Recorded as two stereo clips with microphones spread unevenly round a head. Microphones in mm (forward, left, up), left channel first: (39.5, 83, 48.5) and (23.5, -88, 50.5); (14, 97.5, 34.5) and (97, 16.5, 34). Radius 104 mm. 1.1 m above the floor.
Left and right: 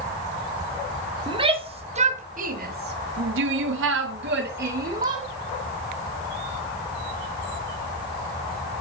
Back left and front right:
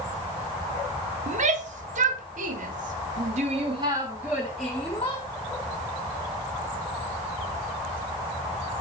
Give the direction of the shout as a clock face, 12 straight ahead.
1 o'clock.